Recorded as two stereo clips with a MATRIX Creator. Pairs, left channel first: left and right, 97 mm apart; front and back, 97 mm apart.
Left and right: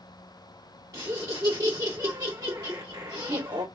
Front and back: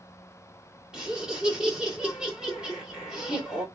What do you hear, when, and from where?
0.9 s laughter: 105° right, 1.4 m